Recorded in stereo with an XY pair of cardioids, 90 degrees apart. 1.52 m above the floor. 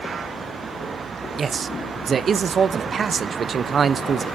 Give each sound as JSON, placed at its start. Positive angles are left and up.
{"t": 1.4, "sound": "a man speaking", "azimuth_deg": -50, "distance_m": 0.7}